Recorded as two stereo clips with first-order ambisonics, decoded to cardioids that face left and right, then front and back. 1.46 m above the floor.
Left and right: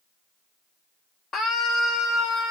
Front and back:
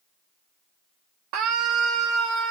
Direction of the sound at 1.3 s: 150° left.